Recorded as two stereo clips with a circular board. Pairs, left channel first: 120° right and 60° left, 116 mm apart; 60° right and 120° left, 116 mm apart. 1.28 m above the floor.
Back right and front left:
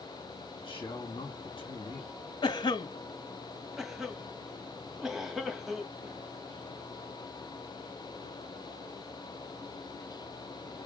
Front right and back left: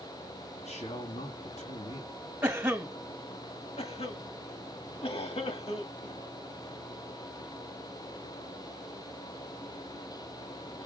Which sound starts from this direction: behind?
A cough, at 2.4 s.